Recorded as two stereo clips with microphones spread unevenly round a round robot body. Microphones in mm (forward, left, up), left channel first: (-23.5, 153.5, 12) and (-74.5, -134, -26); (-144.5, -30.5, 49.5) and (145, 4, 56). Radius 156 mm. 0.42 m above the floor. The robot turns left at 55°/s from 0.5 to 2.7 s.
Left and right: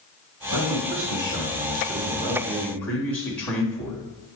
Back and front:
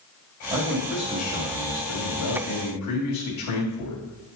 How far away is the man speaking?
About 2.5 m.